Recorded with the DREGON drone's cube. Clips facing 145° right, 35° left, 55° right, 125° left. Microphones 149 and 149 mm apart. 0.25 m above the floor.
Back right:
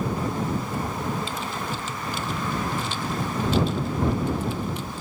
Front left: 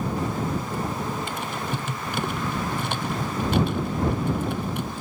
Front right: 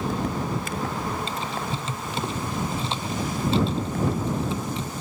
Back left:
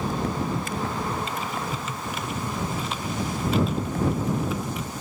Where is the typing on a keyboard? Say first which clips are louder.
Front left 1 dB, even; 5° left.